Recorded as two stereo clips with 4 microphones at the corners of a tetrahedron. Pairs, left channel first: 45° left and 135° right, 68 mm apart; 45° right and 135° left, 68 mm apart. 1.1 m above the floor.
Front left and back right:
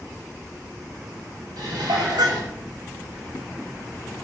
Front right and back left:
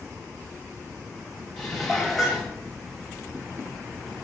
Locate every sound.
1.6 s dishes clattering: 135° right, 4 m